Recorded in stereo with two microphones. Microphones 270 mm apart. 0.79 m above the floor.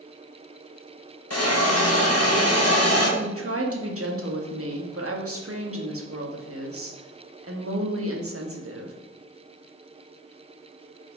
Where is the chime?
I don't hear a chime.